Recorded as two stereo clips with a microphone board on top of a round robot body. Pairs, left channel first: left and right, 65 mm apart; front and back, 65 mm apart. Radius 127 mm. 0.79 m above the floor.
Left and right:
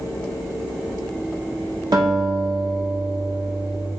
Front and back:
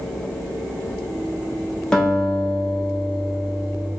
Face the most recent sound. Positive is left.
turn(degrees=-80)